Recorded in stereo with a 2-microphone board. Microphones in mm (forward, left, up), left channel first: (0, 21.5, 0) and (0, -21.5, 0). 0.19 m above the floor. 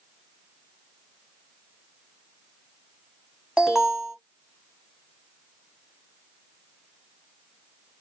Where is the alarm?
10° right (ahead or behind), 1.0 m.